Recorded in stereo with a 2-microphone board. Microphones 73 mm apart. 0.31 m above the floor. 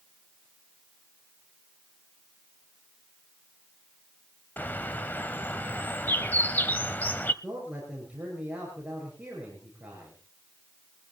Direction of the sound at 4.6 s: 25° left (ahead or behind).